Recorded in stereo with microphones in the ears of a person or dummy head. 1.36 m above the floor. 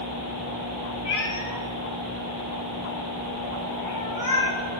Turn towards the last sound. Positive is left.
turn(degrees=15)  # may be behind; listen again after turning